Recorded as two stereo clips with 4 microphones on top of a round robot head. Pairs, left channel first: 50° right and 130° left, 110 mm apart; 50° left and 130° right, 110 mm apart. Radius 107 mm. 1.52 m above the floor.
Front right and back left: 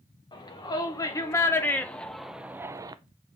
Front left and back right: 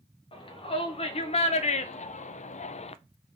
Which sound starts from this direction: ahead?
A shout, at 0.3 s.